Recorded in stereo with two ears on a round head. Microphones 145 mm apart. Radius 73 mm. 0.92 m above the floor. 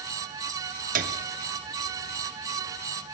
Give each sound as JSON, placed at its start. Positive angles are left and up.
{"t": 0.9, "sound": "a piano", "side_deg": -55, "distance_m": 0.9}